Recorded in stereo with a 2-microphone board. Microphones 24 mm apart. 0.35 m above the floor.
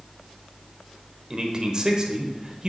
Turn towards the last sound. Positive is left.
turn(degrees=-30)  # may be behind; listen again after turning